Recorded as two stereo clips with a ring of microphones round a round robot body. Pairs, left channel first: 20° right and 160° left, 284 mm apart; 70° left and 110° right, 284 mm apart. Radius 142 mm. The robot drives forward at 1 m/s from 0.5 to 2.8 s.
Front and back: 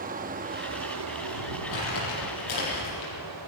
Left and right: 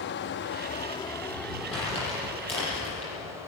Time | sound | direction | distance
0.0 | running water | 105° left | 0.8 m
1.7 | crumpling | 5° right | 10 m